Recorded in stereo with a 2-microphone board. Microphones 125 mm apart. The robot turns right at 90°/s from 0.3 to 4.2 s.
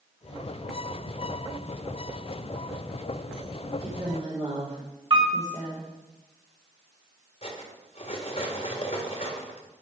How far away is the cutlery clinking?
About 1.7 m.